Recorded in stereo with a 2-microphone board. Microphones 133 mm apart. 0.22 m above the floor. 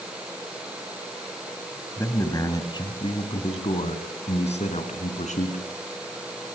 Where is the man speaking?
20° left (ahead or behind), 1.6 m; by 5.6 s 60° left (ahead or behind), 3 m.